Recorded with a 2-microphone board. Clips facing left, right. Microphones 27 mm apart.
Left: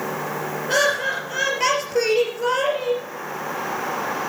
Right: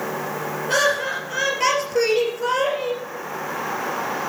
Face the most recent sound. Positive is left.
turn(degrees=5)  # may be behind; listen again after turning